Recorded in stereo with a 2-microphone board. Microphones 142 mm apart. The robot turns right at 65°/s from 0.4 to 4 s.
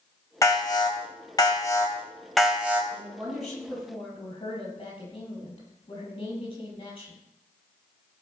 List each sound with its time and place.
0.4 s an alarm: 50° left, 2 m; by 2.8 s 155° right, 2 m
2.9 s a woman speaking: 35° right, 6 m; by 7.2 s 35° left, 6 m